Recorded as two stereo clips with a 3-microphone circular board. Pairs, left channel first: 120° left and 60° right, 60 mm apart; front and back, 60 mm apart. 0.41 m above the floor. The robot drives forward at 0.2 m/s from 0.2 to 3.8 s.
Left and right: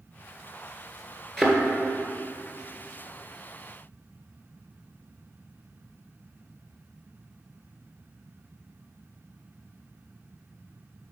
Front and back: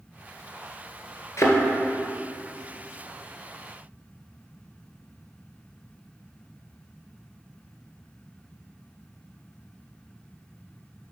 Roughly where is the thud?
Ahead left.